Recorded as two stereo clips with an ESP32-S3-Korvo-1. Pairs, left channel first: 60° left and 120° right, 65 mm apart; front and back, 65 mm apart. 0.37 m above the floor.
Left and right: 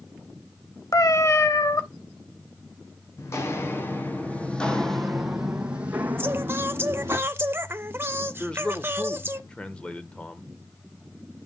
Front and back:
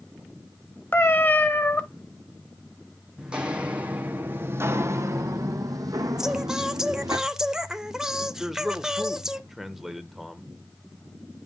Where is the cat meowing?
50° left, 0.8 m.